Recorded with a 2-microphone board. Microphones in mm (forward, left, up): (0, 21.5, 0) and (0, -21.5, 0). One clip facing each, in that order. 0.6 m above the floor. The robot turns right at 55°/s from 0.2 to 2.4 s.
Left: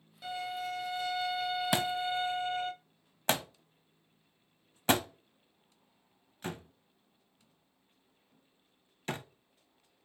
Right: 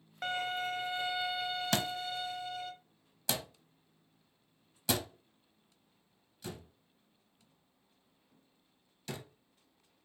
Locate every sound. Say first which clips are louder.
0.2 s a violin: right 2 dB; 70° right, 0.6 m; by 2.7 s 50° left, 0.6 m
1.7 s a thud: left 4 dB; 15° left (ahead or behind), 0.6 m; by 9.2 s 45° left (ahead or behind), 0.6 m